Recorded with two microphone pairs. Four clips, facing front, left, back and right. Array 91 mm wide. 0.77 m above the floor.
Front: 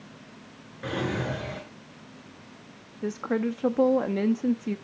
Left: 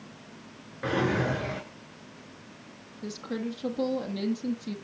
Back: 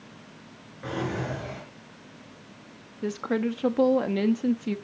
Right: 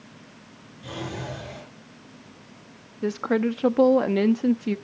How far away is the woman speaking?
About 1.0 m.